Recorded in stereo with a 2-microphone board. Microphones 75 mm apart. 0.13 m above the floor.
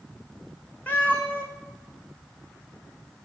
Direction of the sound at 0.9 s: 25° left (ahead or behind).